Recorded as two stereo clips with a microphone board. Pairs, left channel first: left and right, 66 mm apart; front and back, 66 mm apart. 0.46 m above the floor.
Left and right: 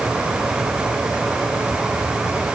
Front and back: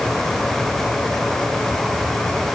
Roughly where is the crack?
No crack in this recording.